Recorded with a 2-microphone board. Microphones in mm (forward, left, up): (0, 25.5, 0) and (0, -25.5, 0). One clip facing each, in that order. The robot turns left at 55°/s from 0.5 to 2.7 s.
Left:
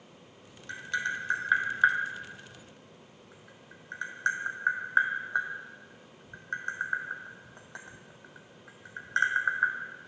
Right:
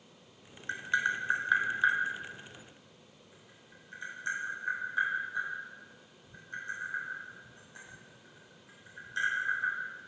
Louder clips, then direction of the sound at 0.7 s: Right 2 dB; 35° right (ahead or behind).